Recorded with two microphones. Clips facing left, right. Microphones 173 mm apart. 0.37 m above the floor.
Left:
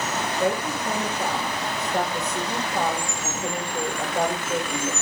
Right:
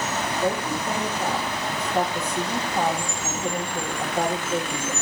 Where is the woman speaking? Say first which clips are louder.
Left 1 dB; 85° left, 9.5 m.